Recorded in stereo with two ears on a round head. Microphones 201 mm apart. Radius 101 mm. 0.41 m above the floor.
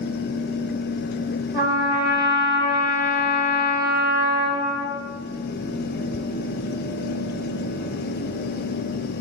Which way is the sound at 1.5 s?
15° right (ahead or behind).